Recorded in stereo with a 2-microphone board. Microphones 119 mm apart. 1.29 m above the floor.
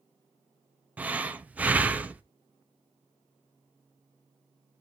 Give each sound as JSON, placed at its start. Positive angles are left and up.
{"t": 1.0, "sound": "breathing", "side_deg": -10, "distance_m": 0.5}